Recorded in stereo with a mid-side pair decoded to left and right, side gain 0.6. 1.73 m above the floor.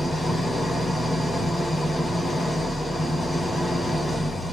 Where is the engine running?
15° left, 3.5 m.